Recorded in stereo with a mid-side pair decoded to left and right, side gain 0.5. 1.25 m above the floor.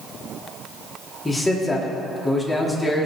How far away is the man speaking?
About 3.5 m.